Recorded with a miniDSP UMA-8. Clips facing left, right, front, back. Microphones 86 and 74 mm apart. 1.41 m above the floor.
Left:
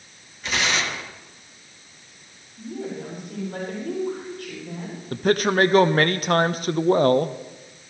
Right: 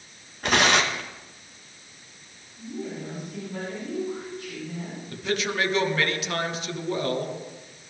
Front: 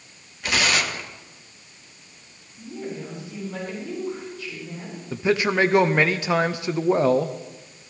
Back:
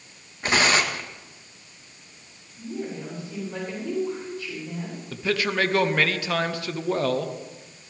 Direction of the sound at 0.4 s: 125° right.